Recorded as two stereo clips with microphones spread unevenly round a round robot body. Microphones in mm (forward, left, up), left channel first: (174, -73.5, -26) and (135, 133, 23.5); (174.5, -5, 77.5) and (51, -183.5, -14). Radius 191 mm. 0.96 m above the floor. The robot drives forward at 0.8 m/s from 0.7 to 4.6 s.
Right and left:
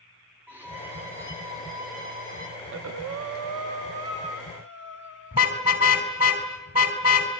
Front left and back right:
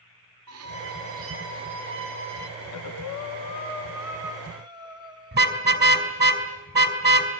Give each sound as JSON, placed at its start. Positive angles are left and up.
{"t": 0.5, "sound": "a violin", "azimuth_deg": 180, "distance_m": 0.7}
{"t": 2.6, "sound": "breathing", "azimuth_deg": 65, "distance_m": 0.7}
{"t": 5.3, "sound": "a car horn", "azimuth_deg": -175, "distance_m": 2.5}